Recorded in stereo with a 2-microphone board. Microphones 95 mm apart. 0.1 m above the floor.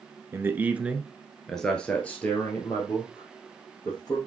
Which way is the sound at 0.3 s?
25° right (ahead or behind).